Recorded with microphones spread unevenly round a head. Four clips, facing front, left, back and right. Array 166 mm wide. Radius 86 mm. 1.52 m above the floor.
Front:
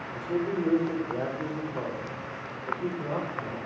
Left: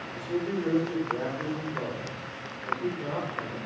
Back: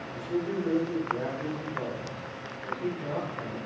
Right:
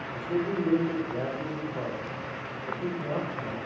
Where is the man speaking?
20° left, 6 m.